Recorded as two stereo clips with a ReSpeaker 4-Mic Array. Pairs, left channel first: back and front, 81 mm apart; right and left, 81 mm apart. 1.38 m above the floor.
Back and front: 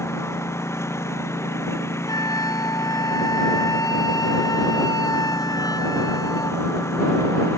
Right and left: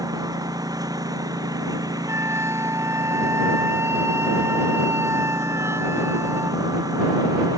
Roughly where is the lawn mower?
Behind left.